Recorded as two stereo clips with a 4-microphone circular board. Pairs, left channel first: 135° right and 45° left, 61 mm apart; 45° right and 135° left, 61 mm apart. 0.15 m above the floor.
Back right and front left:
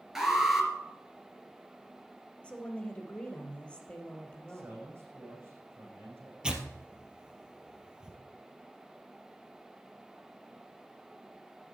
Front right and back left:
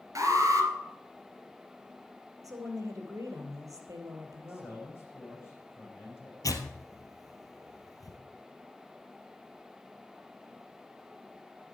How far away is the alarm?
About 3 m.